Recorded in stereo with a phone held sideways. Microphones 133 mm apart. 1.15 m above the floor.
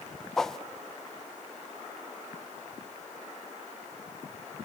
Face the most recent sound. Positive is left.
turn(degrees=5)  # may be behind; listen again after turning